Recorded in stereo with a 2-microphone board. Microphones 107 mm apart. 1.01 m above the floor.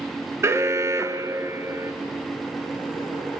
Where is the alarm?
25° right (ahead or behind), 1.3 m.